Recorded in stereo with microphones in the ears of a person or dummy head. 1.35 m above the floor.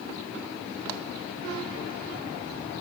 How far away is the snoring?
I don't hear snoring.